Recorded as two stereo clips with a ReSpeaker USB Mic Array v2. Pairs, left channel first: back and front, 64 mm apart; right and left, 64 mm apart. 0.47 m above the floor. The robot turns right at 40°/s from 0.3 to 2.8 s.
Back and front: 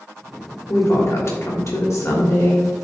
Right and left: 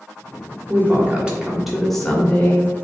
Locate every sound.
0.7 s a woman speaking: 140° left, 2 m; by 2.7 s 145° right, 2 m